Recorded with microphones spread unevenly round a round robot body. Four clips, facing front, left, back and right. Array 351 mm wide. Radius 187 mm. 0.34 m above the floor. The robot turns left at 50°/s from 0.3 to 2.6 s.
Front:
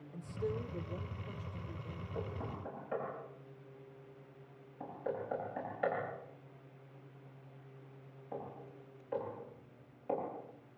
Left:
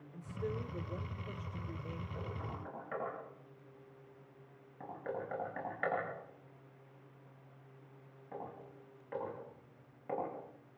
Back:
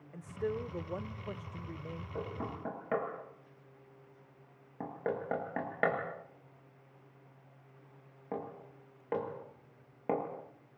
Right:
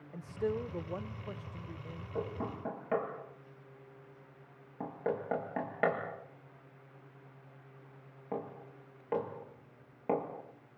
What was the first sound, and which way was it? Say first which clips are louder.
A man speaking: right 6 dB, back 3 dB; 105° right.